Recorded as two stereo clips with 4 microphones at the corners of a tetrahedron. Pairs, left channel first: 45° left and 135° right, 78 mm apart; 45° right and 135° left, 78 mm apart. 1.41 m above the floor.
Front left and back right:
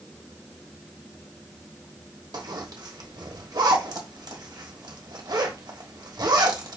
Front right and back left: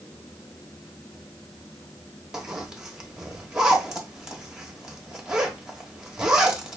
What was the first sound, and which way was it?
A zipper, 145° right.